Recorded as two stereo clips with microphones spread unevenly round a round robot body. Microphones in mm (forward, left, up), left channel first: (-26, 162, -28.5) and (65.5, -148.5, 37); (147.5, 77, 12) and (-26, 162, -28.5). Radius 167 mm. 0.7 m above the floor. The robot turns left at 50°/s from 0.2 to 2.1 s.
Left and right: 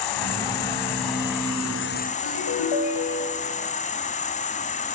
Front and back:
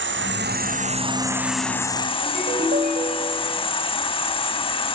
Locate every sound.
0.0 s an insect: 130° left, 2 m; by 5.0 s 35° left, 2 m
2.2 s a ringtone: 110° left, 3 m